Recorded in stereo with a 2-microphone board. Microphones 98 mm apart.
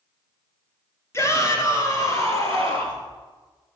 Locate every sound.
1.1 s a shout: 30° left (ahead or behind), 1.9 m